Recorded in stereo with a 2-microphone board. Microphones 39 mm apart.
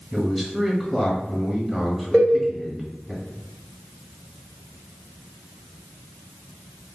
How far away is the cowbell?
About 1.5 m.